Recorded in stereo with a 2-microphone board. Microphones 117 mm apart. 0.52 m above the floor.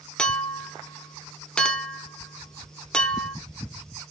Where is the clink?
5° left (ahead or behind), 0.9 m.